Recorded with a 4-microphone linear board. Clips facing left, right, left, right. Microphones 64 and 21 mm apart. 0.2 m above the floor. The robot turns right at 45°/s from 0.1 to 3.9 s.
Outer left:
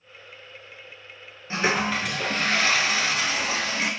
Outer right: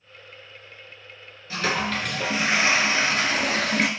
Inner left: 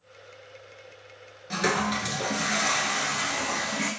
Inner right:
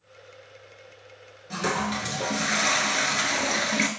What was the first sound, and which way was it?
A toilet flushing, 150° left.